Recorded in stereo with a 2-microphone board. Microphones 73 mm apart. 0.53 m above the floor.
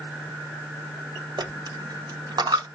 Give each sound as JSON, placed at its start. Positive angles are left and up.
{"t": 1.4, "sound": "a dropped coin", "side_deg": -80, "distance_m": 1.1}